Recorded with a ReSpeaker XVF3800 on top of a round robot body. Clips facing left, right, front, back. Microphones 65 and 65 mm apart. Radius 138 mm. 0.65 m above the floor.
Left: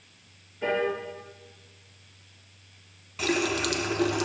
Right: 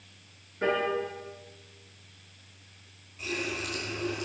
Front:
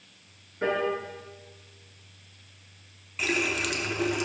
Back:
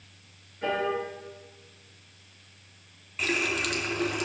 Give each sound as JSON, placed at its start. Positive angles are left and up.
{"t": 0.6, "sound": "a piano", "azimuth_deg": -45, "distance_m": 4.5}
{"t": 3.2, "sound": "a running tap", "azimuth_deg": 90, "distance_m": 1.0}